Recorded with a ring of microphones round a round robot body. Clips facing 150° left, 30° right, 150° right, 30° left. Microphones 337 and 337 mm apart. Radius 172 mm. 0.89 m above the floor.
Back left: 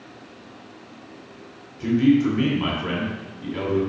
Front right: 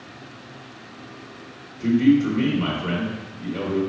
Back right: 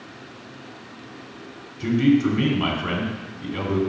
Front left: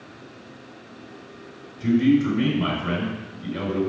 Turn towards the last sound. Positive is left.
turn(degrees=-130)